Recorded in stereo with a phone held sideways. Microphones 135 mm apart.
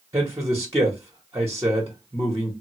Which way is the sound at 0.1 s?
20° right (ahead or behind).